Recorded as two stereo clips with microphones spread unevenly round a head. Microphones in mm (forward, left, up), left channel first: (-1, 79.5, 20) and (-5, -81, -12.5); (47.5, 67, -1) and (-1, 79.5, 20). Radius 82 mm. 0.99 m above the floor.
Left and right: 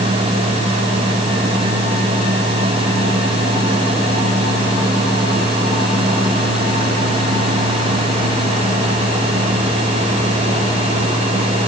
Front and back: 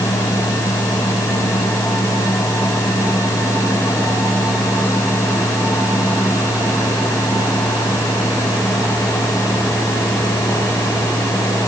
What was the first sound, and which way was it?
Only background noise.